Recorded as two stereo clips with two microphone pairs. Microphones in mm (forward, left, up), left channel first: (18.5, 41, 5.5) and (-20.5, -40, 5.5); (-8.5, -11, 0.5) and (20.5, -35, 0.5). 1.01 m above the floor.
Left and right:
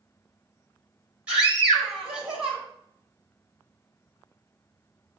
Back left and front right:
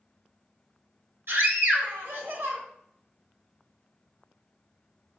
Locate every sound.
1.3 s a scream: 40° right, 3.5 m